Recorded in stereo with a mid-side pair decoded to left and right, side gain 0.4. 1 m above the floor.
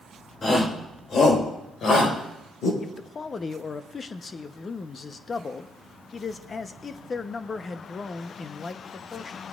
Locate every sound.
0.4 s a shout: 45° left, 4 m; by 2.7 s 75° left, 5.5 m
2.8 s a man speaking: 45° left, 0.9 m